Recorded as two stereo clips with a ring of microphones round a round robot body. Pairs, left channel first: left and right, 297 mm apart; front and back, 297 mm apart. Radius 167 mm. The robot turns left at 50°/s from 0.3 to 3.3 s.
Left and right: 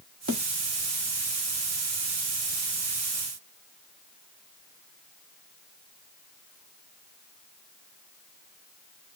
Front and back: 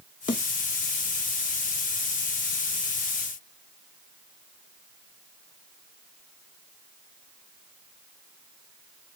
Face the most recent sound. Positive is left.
turn(degrees=160)